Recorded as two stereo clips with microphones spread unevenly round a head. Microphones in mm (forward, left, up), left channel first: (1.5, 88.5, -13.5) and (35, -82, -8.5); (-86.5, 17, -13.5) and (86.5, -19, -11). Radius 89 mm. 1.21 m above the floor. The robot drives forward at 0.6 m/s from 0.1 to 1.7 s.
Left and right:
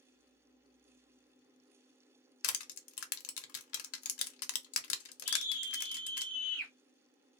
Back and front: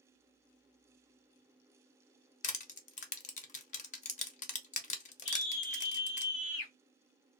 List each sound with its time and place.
2.4 s crushing: 115° left, 0.5 m
5.2 s a scream: straight behind, 0.7 m